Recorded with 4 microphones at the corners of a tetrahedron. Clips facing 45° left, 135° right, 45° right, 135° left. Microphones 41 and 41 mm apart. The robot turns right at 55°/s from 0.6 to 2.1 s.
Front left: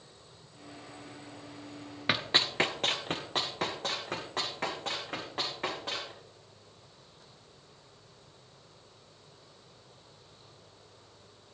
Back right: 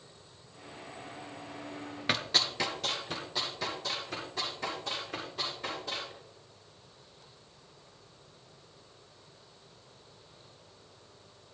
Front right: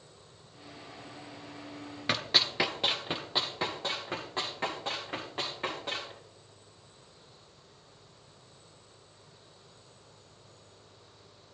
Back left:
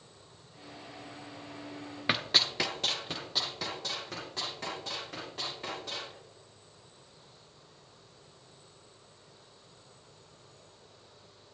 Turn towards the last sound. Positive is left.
turn(degrees=10)